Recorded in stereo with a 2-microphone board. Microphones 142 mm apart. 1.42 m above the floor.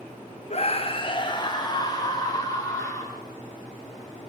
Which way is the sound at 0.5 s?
50° left (ahead or behind).